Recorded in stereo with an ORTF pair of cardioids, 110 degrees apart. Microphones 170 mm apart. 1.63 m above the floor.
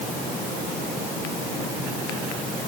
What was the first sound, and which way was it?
Only background noise.